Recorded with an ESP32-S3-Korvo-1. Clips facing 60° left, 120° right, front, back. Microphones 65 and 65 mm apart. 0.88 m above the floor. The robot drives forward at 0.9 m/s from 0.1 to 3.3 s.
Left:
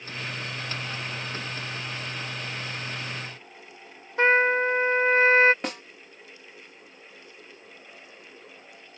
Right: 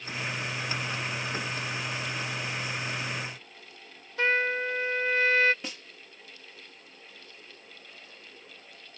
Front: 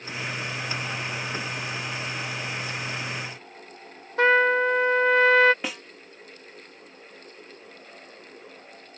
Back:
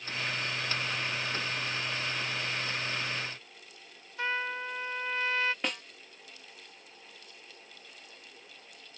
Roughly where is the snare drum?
Left.